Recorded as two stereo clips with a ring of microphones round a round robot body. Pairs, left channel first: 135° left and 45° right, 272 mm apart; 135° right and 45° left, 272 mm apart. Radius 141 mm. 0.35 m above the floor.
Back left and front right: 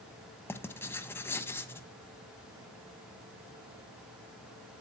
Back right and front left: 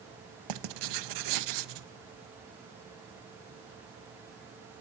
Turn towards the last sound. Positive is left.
turn(degrees=55)